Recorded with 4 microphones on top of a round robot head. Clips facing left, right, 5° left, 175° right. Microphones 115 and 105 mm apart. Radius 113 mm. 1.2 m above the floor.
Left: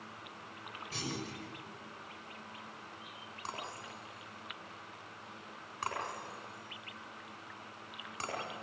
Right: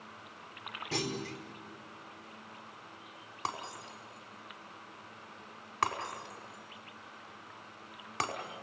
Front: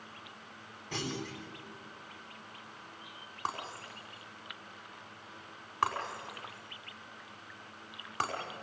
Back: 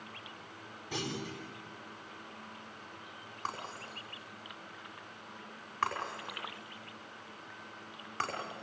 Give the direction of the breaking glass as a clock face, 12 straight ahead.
2 o'clock.